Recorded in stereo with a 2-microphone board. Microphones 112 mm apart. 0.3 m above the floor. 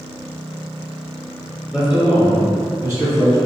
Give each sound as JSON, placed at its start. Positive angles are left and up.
{"t": 1.7, "sound": "a man speaking", "side_deg": -5, "distance_m": 1.2}